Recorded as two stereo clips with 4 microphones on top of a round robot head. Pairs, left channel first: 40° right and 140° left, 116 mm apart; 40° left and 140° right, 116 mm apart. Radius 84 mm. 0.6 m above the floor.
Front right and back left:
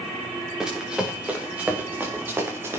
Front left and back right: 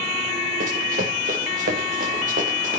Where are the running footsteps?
135° right, 5.5 m; by 2.8 s 150° right, 5 m.